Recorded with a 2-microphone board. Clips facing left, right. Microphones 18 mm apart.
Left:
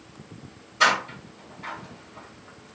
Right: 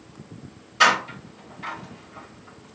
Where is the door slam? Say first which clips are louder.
Right 3 dB; 65° right (ahead or behind), 1.8 m.